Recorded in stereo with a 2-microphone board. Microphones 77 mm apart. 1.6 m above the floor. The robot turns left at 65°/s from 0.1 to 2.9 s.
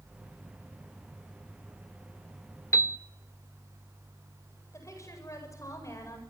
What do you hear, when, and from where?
2.7 s a piano: 45° left (ahead or behind), 0.5 m; by 3.0 s 35° left (ahead or behind), 0.5 m
4.7 s a woman speaking: 45° left (ahead or behind), 8.5 m